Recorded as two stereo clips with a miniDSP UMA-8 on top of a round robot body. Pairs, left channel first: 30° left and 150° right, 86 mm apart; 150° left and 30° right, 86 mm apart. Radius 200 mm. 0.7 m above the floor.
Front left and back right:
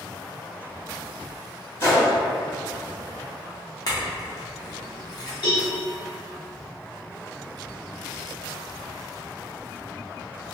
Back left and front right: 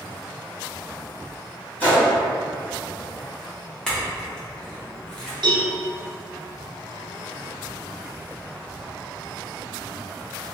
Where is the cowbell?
Straight ahead, 0.7 m.